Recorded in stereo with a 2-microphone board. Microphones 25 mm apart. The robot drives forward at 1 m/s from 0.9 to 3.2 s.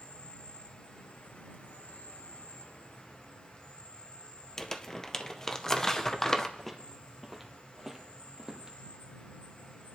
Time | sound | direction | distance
0.0 | an insect | 55° left (ahead or behind) | 1.8 m
4.6 | crumpling | 15° left (ahead or behind) | 0.8 m
6.6 | footsteps | 5° left (ahead or behind) | 1.8 m